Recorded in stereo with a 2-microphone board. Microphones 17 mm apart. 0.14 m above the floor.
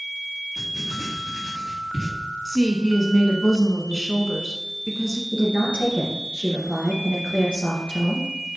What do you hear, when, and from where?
0.6 s writing: 40° right (ahead or behind), 4 m
2.5 s a woman speaking: 10° right (ahead or behind), 1.1 m
5.3 s a woman speaking: 55° right (ahead or behind), 2.5 m